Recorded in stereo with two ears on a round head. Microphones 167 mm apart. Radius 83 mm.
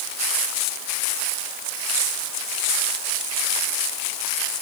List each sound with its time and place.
Only background noise.